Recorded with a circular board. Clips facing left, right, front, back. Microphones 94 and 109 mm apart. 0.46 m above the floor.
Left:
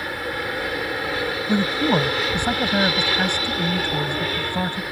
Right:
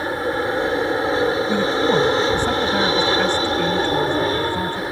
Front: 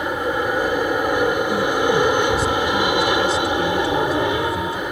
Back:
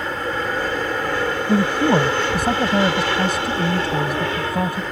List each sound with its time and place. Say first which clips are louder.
0.0 s an aircraft: right 6 dB, front 3 dB; 60° right
1.5 s a man speaking: right 2 dB, back 1 dB; 165° left